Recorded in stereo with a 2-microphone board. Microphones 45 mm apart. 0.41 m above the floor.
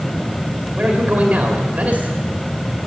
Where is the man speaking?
30° right (ahead or behind), 2 m.